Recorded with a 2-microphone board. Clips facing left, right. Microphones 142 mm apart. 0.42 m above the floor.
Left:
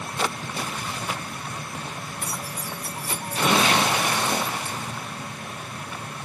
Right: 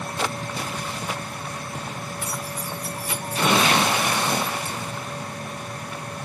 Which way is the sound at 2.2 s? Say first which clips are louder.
Right 2 dB; 50° left (ahead or behind).